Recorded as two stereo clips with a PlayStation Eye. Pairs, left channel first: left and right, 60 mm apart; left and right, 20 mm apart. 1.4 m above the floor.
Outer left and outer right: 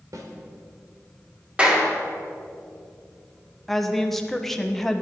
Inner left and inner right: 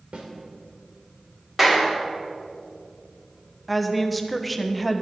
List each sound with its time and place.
0.1 s a snare drum: 65° right (ahead or behind), 2 m
1.6 s a clap: 20° right (ahead or behind), 2.5 m
3.7 s a woman speaking: 5° left (ahead or behind), 1.2 m